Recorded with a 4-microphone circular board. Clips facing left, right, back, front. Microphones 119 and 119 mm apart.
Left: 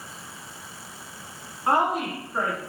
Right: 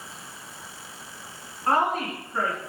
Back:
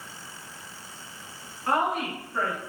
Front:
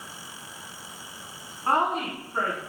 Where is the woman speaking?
25° left, 1.3 m.